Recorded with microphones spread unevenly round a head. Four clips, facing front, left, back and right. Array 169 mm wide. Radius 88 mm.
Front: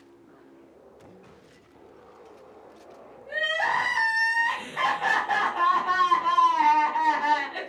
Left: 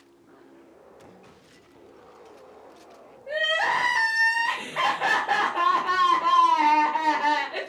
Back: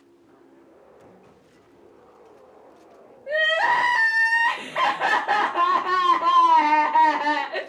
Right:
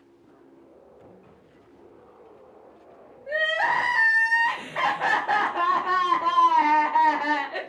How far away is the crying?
About 1.4 m.